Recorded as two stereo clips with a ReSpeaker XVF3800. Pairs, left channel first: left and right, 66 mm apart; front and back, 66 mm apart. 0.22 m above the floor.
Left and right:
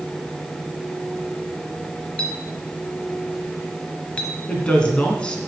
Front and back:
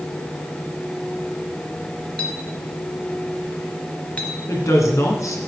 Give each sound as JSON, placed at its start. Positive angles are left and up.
{"t": 2.2, "sound": "a clink", "azimuth_deg": 45, "distance_m": 1.1}
{"t": 4.5, "sound": "a woman speaking", "azimuth_deg": 20, "distance_m": 2.0}